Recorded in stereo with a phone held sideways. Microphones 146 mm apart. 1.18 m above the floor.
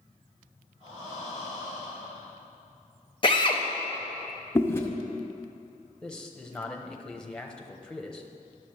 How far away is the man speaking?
About 0.8 m.